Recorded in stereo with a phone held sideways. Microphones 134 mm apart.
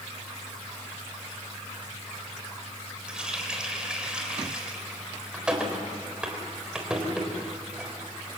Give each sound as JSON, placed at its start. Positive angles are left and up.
{"t": 3.1, "sound": "a running tap", "side_deg": -5, "distance_m": 4.0}